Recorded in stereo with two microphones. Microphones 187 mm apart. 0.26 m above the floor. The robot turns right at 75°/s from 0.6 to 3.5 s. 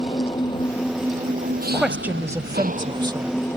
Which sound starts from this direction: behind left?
An engine running, at 0.0 s.